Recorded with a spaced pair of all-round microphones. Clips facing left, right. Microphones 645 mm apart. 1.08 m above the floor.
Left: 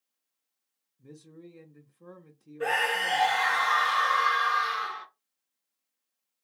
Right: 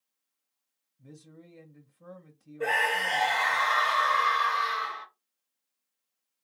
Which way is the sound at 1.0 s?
15° right (ahead or behind).